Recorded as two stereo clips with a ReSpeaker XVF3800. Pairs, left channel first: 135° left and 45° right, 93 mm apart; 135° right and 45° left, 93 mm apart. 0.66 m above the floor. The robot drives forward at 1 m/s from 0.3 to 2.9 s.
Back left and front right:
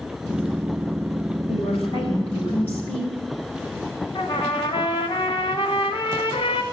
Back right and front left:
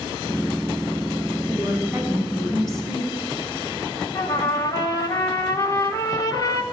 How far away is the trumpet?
About 1.5 m.